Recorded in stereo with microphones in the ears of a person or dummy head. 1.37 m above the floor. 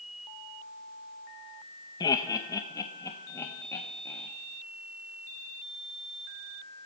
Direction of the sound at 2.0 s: 20° left (ahead or behind).